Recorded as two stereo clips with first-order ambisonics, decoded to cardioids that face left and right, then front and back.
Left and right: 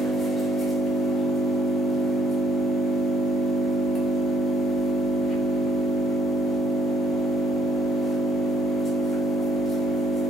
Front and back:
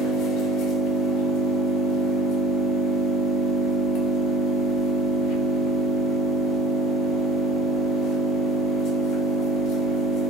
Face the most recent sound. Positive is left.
turn(degrees=20)